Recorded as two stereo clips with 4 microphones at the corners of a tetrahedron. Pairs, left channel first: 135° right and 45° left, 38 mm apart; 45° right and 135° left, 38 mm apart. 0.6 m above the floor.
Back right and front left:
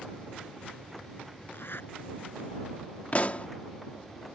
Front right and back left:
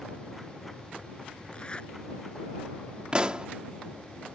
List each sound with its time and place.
1.5 s a zipper: 110° right
3.1 s a pop: 170° right